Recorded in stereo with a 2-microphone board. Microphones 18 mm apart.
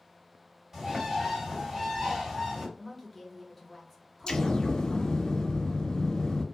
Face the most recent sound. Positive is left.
turn(degrees=50)  # may be behind; listen again after turning